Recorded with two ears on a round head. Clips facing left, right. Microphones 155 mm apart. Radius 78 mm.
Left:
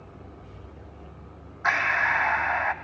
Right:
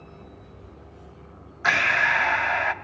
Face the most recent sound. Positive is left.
turn(degrees=-35)  # may be behind; listen again after turning